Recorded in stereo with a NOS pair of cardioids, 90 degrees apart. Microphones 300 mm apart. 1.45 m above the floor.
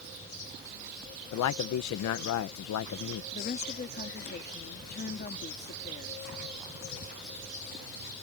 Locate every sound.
1.3 s a man speaking: 70° left
3.3 s a woman speaking: 35° left